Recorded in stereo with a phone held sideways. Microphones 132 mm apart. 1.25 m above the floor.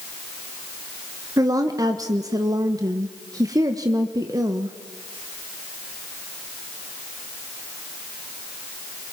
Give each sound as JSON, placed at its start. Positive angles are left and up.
{"t": 1.4, "sound": "a woman speaking", "side_deg": -30, "distance_m": 1.3}